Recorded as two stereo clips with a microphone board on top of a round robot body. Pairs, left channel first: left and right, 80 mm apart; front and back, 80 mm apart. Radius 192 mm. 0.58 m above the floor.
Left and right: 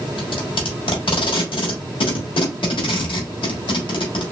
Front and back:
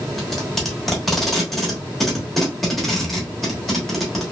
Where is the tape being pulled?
85° left, 1.1 m.